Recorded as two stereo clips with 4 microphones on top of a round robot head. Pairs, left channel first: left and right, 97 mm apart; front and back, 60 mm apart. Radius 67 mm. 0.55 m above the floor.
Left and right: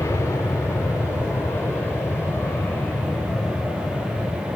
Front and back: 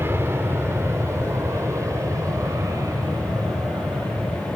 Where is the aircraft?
145° left; by 4.6 s 165° left.